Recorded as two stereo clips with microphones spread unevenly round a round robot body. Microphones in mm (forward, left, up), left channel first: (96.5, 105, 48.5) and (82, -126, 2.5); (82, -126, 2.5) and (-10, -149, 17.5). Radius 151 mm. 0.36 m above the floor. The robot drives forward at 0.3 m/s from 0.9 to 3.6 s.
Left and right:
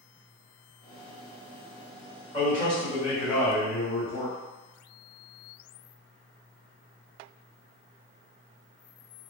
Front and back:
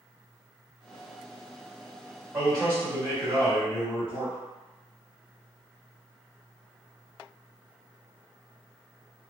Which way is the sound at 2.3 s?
160° left.